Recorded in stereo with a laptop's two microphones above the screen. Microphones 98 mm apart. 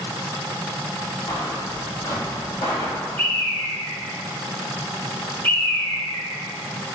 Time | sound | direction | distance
1.3 | footsteps | 45° left (ahead or behind) | 1.5 m
3.2 | a bird | 15° left (ahead or behind) | 0.9 m